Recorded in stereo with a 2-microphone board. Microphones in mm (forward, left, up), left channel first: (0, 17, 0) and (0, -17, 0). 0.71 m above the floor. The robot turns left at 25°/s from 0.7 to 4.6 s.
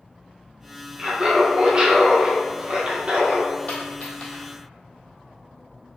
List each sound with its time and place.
1.0 s laughter: 30° right, 0.6 m; by 3.5 s 95° right, 0.6 m
3.7 s a dropped coin: 45° left (ahead or behind), 1.2 m; by 4.5 s 35° left (ahead or behind), 1.2 m